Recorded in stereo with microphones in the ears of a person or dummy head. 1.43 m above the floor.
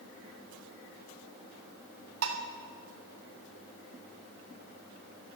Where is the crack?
No crack in this recording.